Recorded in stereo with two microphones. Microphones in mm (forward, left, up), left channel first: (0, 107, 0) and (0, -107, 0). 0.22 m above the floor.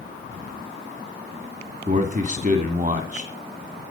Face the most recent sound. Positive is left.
turn(degrees=-40)  # may be behind; listen again after turning